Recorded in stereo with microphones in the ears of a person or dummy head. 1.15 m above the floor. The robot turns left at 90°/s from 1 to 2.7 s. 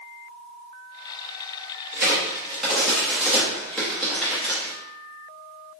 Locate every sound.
1.9 s a crack: 55° right (ahead or behind), 0.7 m; by 4.7 s centre (ahead or behind), 0.7 m